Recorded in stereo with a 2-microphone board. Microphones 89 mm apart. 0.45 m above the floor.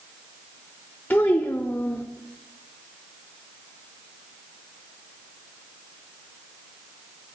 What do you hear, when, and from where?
1.1 s a child speaking: 20° left (ahead or behind), 0.5 m